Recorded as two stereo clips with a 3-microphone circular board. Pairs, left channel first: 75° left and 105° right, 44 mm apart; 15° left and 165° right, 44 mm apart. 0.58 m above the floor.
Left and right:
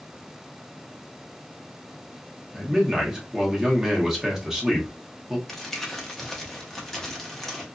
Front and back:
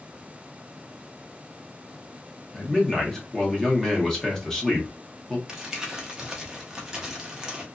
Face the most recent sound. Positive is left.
turn(degrees=140)